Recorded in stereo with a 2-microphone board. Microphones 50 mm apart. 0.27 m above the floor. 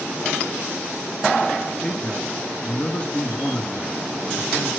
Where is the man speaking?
30° left (ahead or behind), 4 m.